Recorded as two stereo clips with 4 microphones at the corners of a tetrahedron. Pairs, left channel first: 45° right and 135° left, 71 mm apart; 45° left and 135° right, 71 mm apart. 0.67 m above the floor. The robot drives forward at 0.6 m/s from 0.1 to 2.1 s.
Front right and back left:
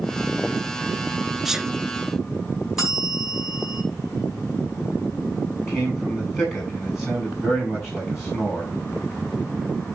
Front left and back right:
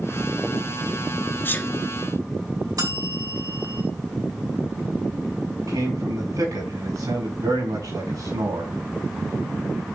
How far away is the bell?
About 5 m.